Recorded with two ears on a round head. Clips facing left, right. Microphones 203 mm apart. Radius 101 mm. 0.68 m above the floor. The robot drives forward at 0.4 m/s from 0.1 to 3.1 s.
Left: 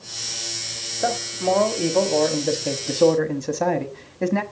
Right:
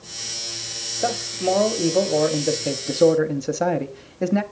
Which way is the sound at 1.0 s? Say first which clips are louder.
Even; 5° right (ahead or behind).